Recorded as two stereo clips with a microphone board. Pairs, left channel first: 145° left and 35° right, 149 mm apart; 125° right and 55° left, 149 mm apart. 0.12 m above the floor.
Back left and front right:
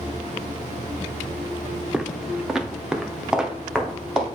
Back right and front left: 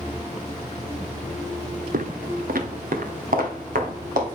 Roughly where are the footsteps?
Ahead left.